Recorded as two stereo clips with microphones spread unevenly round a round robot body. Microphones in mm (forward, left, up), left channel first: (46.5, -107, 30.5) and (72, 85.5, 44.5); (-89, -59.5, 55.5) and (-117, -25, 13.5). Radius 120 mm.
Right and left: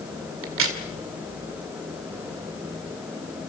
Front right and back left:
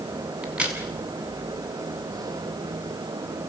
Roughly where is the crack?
Left.